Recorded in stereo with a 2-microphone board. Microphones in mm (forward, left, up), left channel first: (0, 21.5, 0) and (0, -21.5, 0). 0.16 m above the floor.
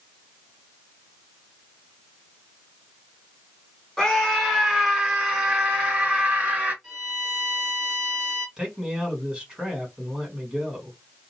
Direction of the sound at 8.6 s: 15° right (ahead or behind).